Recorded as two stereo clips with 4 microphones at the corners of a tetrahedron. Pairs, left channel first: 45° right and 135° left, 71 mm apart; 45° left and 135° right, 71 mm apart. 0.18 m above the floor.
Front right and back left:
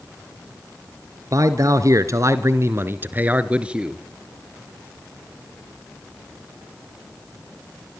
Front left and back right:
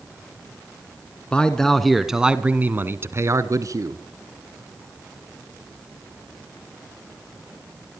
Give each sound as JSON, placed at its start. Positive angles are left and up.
{"t": 1.3, "sound": "a man speaking", "azimuth_deg": 115, "distance_m": 1.8}